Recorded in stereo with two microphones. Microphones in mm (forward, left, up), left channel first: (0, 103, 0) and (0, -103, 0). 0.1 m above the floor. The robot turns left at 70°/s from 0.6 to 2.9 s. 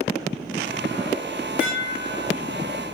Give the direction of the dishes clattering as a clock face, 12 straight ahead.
12 o'clock.